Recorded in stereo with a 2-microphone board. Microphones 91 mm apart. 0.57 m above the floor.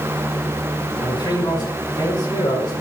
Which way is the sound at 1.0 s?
50° left (ahead or behind).